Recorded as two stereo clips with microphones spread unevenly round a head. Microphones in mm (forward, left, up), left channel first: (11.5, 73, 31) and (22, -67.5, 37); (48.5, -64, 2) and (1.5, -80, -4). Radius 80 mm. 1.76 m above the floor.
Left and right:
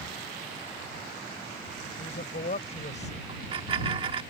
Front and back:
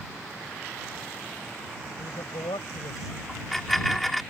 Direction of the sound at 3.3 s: 55° right.